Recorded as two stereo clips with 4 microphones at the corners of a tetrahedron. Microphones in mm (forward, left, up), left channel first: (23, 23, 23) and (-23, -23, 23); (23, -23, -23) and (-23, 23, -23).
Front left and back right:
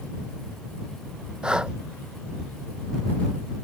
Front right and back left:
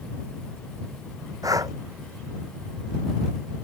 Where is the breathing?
150° left.